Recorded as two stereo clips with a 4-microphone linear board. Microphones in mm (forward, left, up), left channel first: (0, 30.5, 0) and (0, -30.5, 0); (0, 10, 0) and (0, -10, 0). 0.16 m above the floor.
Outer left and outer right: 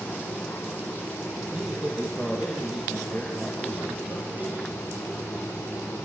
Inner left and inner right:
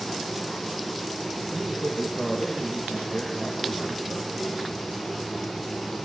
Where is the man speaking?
15° right (ahead or behind), 5 m.